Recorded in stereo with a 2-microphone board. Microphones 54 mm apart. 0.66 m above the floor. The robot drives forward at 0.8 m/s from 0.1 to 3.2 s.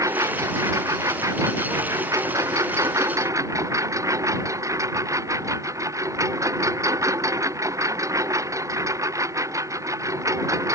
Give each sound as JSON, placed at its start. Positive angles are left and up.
{"t": 0.0, "sound": "a lawn mower", "side_deg": -75}